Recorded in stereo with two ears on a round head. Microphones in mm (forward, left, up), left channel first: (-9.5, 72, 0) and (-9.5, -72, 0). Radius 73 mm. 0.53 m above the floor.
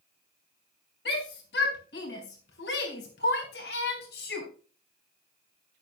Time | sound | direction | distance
1.1 | a shout | 70° left (ahead or behind) | 4 m